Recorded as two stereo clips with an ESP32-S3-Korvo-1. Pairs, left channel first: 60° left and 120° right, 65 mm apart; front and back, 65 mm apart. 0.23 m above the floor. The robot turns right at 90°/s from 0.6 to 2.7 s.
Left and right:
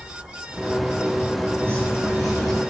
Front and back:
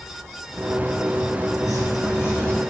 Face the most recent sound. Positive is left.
turn(degrees=85)